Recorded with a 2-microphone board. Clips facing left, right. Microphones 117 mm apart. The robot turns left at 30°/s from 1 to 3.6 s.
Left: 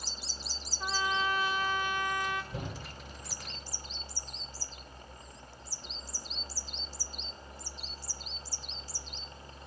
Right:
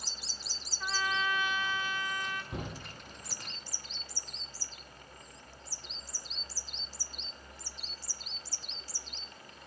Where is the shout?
80° right, 7.5 m; by 2.7 s 85° right, 7.5 m.